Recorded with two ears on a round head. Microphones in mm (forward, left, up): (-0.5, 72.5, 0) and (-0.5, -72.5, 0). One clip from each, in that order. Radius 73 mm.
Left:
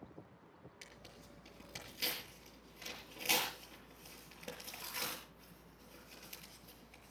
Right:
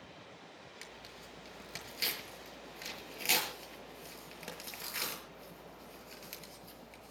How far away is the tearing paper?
About 6 m.